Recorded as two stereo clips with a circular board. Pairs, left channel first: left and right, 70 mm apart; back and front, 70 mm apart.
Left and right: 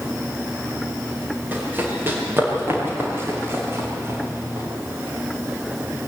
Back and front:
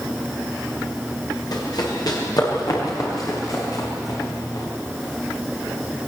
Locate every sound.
1.5 s running footsteps: 155° right, 7 m; by 4.7 s 140° right, 8.5 m